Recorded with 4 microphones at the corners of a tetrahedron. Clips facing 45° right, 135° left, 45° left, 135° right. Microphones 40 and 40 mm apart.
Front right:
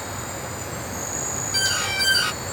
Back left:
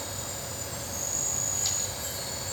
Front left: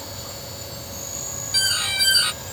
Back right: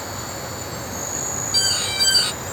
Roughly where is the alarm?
Ahead right.